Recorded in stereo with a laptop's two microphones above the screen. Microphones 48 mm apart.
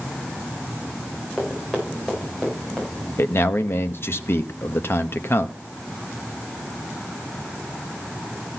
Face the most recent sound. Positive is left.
turn(degrees=55)  # may be behind; listen again after turning